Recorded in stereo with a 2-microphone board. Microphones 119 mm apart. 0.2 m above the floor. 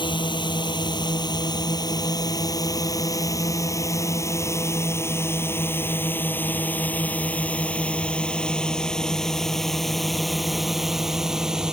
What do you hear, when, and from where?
0.0 s a drone: 45° left (ahead or behind); by 11.7 s 5° right (ahead or behind)